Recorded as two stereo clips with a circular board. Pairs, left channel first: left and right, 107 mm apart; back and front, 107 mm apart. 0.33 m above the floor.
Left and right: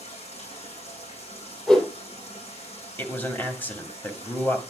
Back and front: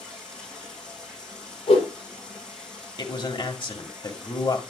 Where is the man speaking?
155° left, 1.9 m.